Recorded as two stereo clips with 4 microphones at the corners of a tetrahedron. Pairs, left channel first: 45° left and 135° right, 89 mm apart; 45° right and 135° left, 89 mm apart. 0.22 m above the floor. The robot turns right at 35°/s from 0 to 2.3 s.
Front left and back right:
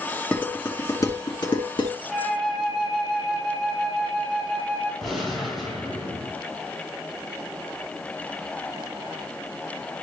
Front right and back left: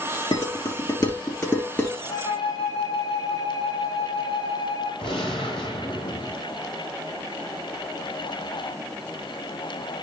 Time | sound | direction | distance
0.3 | dishes clattering | 25° right | 2.5 m
2.1 | a flute | 50° right | 3 m
5.0 | a gunshot | 45° right | 6 m